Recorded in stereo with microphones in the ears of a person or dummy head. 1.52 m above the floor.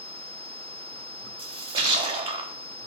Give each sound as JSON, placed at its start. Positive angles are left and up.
{"t": 1.4, "sound": "a splash", "side_deg": -35, "distance_m": 0.9}